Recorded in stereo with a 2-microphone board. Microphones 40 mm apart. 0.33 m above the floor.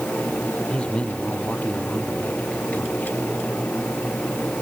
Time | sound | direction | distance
0.7 | a man speaking | 25° left (ahead or behind) | ?